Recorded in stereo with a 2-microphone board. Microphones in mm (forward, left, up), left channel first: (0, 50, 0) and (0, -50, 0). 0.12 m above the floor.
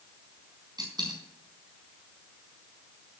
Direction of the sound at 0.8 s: 40° right (ahead or behind).